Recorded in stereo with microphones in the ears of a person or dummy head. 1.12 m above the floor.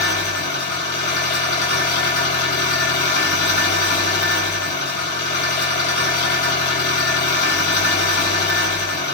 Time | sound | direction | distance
0.0 | an engine running | 55° left (ahead or behind) | 1.3 m